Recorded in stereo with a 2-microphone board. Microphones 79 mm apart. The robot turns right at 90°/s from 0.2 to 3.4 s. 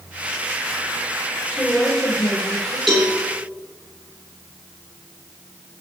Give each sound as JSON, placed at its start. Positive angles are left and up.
{"t": 1.5, "sound": "a woman speaking", "azimuth_deg": -15, "distance_m": 4.0}
{"t": 2.9, "sound": "a cowbell", "side_deg": 0, "distance_m": 3.5}